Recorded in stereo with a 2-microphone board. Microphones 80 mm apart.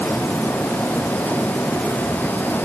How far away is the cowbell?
I don't hear a cowbell.